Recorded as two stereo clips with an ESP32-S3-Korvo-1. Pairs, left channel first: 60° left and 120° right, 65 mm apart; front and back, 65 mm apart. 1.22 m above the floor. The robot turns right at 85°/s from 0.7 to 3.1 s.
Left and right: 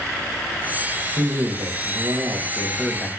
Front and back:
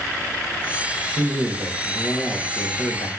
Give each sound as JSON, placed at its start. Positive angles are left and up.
{"t": 1.2, "sound": "a man speaking", "azimuth_deg": -165, "distance_m": 1.5}